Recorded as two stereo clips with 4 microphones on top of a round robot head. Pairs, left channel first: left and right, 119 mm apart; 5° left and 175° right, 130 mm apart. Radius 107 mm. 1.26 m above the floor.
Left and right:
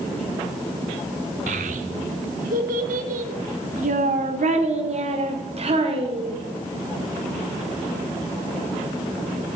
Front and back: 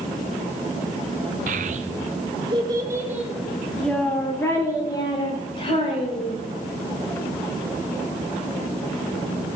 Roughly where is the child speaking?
Behind right.